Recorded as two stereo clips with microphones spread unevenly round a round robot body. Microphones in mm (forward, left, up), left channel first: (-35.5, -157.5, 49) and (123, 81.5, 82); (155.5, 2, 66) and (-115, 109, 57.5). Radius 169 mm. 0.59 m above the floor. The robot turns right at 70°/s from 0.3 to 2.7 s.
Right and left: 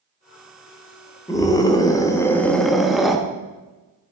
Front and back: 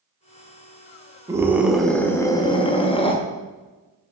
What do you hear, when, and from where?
1.3 s a scream: 150° right, 0.9 m; by 3.2 s 50° right, 0.9 m